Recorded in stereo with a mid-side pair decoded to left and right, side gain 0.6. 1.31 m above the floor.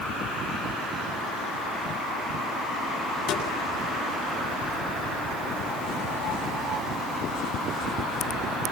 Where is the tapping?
60° left, 8 m.